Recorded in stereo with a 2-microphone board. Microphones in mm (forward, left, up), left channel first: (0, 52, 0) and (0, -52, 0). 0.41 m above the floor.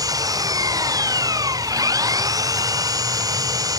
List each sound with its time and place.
0.0 s an engine running: 35° right (ahead or behind)